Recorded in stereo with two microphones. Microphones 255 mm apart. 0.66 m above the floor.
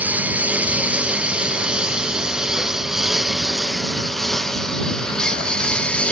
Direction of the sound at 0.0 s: 5° right (ahead or behind).